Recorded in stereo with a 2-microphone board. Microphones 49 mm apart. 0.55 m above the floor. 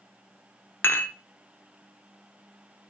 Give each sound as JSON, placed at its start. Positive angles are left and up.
{"t": 0.8, "sound": "dishes clattering", "side_deg": 50, "distance_m": 0.9}